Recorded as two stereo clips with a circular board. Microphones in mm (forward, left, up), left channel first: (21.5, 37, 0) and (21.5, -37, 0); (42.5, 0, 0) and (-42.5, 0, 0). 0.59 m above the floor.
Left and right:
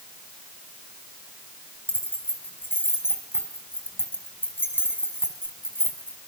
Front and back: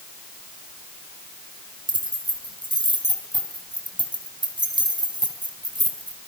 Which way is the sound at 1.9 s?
150° left.